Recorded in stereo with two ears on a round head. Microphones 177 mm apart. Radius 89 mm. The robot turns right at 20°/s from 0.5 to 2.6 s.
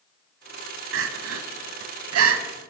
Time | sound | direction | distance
0.9 | crying | 70° right (ahead or behind) | 0.9 m